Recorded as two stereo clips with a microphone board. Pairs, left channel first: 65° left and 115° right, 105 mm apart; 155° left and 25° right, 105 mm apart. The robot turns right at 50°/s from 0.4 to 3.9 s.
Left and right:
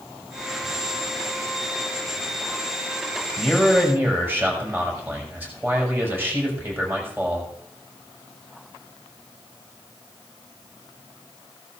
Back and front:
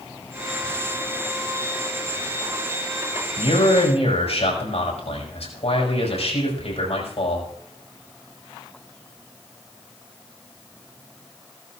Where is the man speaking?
150° left, 5.5 m; by 7.5 s straight behind, 5.5 m.